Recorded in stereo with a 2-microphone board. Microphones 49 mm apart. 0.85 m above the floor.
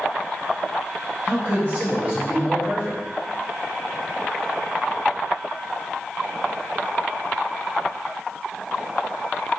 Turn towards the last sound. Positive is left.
turn(degrees=-20)  # may be behind; listen again after turning